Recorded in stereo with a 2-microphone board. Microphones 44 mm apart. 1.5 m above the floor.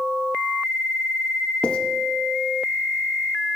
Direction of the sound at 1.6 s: 25° left (ahead or behind).